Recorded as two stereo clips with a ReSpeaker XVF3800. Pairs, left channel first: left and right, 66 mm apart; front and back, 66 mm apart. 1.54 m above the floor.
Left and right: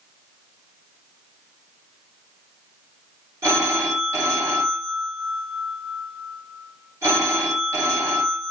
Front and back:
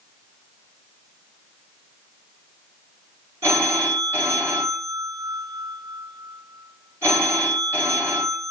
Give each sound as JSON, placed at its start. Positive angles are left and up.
{"t": 3.4, "sound": "a phone ringing", "azimuth_deg": -130, "distance_m": 3.5}